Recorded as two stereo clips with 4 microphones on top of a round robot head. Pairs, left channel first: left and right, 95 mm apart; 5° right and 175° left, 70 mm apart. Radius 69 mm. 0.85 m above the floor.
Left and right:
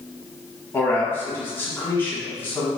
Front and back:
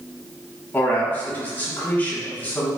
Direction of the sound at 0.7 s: 40° left.